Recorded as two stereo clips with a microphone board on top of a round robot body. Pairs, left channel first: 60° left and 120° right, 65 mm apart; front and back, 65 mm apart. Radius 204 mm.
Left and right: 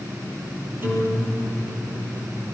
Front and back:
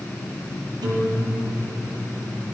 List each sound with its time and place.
0.8 s a guitar: straight behind, 7 m